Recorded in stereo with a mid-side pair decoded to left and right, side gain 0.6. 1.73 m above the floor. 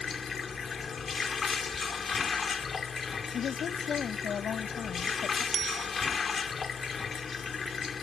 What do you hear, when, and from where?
0.0 s running water: 35° left
3.3 s a woman speaking: 45° left
5.5 s a bicycle bell: 40° right